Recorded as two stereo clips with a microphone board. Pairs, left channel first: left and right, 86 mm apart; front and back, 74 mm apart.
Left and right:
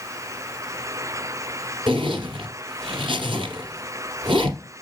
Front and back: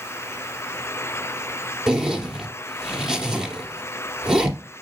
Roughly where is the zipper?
Right.